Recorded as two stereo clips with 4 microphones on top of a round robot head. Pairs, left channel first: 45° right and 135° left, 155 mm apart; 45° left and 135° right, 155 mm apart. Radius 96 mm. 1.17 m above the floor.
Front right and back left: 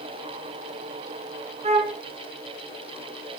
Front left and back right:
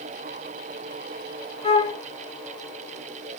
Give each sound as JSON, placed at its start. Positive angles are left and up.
{"t": 1.6, "sound": "a flute", "azimuth_deg": 95, "distance_m": 0.9}